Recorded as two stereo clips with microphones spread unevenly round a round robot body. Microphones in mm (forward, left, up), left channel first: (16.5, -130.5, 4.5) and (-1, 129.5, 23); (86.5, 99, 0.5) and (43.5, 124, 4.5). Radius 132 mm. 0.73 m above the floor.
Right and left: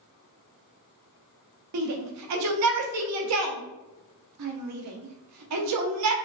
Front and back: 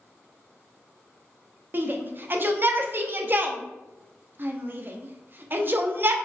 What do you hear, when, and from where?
1.7 s a shout: 100° left, 0.7 m